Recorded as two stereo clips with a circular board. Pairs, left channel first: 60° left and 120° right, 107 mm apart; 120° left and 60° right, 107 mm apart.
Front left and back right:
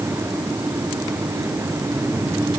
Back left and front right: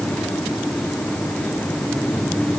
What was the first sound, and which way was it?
Only background noise.